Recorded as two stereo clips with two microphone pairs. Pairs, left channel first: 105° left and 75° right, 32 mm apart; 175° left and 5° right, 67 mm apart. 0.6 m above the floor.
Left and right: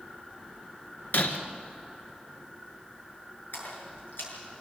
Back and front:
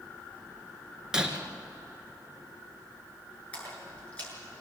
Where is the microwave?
I don't hear a microwave.